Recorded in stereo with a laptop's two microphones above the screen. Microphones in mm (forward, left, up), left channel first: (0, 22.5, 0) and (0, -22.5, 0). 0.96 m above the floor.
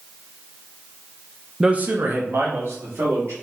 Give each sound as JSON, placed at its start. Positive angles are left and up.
{"t": 1.6, "sound": "a man speaking", "side_deg": -15, "distance_m": 0.6}